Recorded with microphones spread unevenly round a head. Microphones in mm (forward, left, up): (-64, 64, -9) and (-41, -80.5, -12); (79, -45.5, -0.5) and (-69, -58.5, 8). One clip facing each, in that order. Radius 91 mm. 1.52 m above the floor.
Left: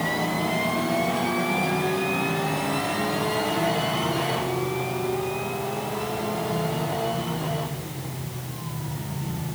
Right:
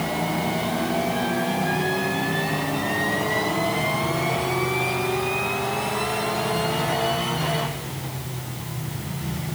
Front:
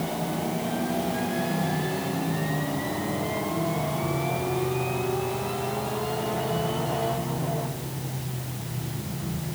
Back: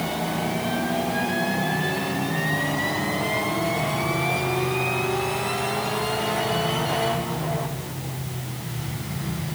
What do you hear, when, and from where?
Only background noise.